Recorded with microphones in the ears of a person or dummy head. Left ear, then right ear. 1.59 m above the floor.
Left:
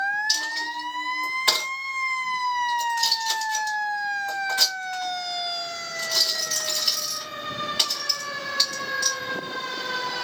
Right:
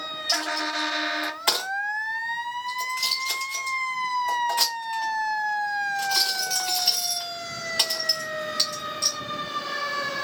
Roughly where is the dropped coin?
Right.